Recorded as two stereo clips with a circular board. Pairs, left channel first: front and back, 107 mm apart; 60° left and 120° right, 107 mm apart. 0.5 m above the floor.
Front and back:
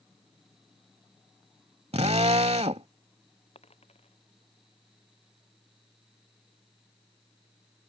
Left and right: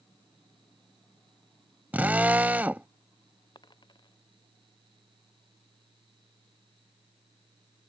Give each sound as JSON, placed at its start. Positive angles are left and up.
{"t": 1.9, "sound": "a drill", "azimuth_deg": 165}
{"t": 3.5, "sound": "a dropped coin", "azimuth_deg": 15}